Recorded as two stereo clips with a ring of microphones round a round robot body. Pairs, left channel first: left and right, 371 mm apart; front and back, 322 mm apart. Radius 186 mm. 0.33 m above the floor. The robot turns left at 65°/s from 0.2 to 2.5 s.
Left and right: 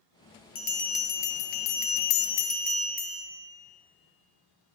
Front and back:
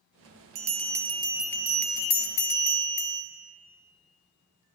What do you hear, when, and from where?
0.6 s a bell: 150° left, 1.7 m; by 3.2 s 20° left, 1.7 m